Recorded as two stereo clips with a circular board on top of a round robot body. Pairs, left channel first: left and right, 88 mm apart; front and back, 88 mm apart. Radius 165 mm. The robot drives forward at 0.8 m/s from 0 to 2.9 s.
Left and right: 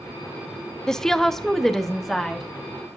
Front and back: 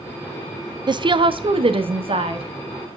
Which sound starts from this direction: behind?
A woman speaking, at 0.9 s.